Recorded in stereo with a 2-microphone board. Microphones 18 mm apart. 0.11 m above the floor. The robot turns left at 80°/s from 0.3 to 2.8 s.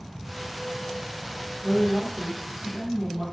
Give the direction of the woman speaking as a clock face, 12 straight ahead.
3 o'clock.